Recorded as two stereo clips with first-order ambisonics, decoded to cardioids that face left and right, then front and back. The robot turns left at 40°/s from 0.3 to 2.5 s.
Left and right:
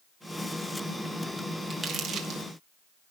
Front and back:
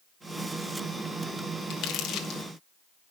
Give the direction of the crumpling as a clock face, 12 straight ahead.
1 o'clock.